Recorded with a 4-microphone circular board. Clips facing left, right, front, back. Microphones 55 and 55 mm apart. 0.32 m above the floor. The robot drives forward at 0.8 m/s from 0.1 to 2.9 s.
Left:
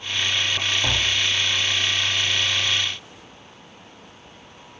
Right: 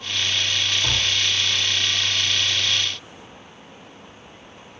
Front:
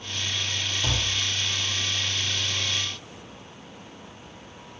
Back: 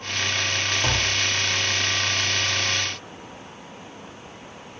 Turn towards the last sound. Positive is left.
turn(degrees=155)